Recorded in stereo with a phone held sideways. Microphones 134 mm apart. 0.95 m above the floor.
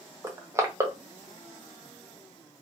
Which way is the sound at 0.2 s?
20° right (ahead or behind).